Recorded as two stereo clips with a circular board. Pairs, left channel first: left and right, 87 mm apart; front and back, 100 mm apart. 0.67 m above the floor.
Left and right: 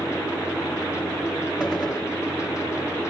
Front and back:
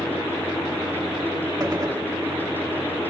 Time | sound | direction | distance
1.6 | a gunshot | 170° right | 1.2 m